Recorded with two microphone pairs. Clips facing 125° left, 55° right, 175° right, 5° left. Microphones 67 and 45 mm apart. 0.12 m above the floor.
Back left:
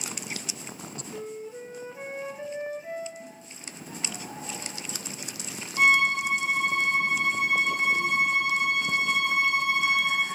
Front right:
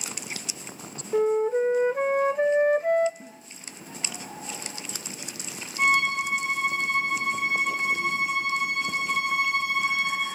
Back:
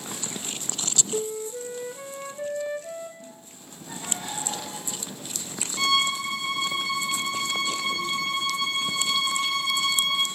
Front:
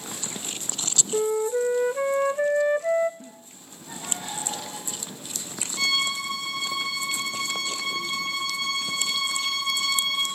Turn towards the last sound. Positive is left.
turn(degrees=105)